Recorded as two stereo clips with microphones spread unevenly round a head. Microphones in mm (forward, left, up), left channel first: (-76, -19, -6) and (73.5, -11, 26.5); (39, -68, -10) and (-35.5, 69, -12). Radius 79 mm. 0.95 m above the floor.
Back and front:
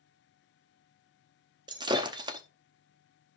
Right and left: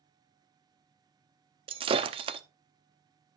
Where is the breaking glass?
60° left, 0.6 m.